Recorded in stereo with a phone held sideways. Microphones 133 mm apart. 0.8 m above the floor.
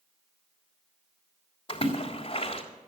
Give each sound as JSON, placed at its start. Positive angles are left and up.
{"t": 1.7, "sound": "a splash", "side_deg": 45, "distance_m": 3.0}